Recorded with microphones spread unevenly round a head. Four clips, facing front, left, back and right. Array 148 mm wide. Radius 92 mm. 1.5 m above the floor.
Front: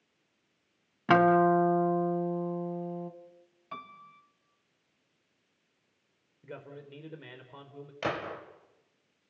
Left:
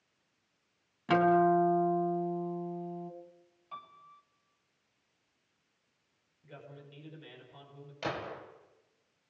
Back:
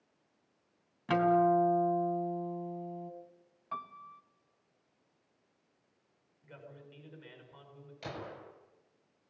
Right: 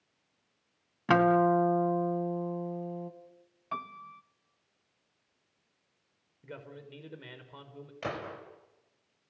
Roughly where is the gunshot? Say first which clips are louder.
Even, front 9 dB; ahead.